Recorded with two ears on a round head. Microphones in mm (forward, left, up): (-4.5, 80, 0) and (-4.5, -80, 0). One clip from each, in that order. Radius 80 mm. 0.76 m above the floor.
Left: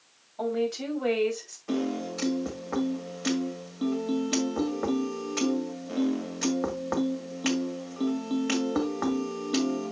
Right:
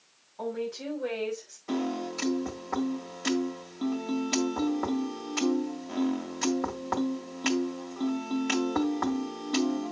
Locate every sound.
0.4 s a woman speaking: 70° left (ahead or behind), 5 m; by 1.6 s 65° left (ahead or behind), 4.5 m
1.7 s a piano: 5° right (ahead or behind), 1.7 m